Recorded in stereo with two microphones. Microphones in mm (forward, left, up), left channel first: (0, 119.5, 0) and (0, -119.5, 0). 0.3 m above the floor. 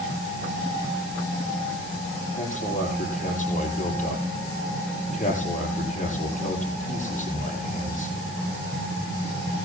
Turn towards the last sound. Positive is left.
turn(degrees=30)  # may be behind; listen again after turning